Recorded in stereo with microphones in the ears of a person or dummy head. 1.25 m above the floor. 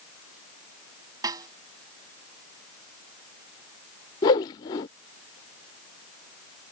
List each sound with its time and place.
1.2 s a snare drum: 20° right (ahead or behind)
4.2 s a whoosh: 20° left (ahead or behind)